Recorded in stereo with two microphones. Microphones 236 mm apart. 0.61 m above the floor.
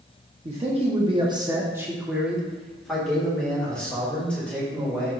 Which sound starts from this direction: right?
A man speaking, at 0.5 s.